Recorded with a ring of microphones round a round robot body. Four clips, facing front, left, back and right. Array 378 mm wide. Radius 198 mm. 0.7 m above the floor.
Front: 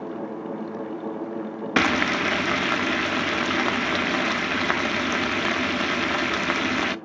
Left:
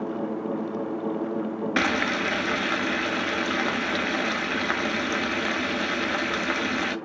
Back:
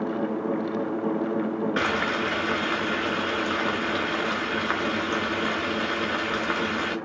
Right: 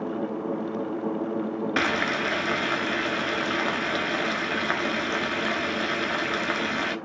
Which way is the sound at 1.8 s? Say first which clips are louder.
Left 2 dB, front 3 dB; straight ahead.